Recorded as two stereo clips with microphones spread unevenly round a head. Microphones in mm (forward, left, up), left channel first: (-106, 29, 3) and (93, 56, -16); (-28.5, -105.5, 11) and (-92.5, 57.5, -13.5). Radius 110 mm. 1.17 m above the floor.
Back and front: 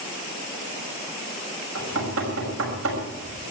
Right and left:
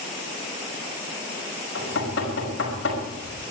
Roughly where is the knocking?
Ahead right.